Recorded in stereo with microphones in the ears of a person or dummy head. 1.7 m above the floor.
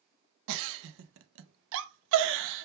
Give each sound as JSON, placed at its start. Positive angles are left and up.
{"t": 0.5, "sound": "a giggle", "side_deg": -70, "distance_m": 0.5}